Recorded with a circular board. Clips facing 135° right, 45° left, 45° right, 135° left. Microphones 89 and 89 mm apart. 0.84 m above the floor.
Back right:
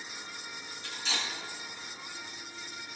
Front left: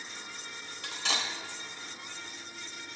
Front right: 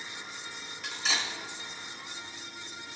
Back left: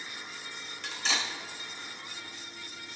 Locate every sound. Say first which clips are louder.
0.8 s cutlery clinking: front left 3 dB, even; 40° left, 2.5 m